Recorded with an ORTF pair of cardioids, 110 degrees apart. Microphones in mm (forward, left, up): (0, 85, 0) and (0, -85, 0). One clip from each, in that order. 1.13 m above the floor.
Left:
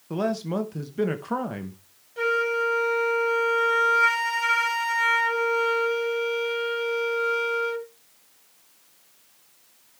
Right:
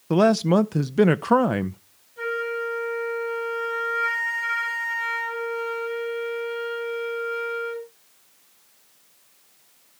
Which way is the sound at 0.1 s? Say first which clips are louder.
Right 9 dB; 45° right.